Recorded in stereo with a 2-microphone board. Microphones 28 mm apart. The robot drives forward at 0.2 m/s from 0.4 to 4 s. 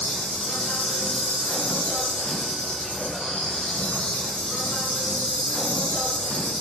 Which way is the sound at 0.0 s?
70° left (ahead or behind).